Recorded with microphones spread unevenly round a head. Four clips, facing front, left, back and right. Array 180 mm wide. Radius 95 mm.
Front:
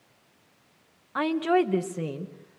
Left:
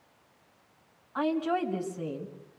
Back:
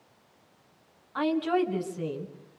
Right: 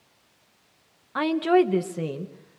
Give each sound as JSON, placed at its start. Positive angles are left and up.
{"t": 1.1, "sound": "a woman speaking", "azimuth_deg": -55, "distance_m": 2.5}